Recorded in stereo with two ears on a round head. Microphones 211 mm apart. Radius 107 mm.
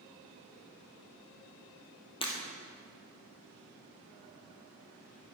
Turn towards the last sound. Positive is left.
turn(degrees=20)  # may be behind; listen again after turning